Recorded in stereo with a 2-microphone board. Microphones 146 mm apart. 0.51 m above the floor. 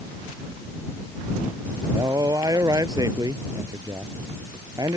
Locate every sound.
1.9 s a man speaking: 25° right (ahead or behind)